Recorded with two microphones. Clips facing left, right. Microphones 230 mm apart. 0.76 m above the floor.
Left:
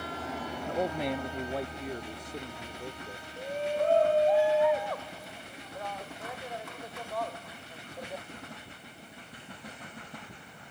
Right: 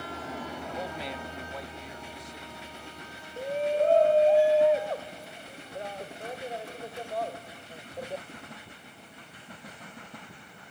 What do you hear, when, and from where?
0.7 s a man speaking: 50° left (ahead or behind); by 3.2 s 55° left (ahead or behind)
3.4 s a shout: 30° right (ahead or behind)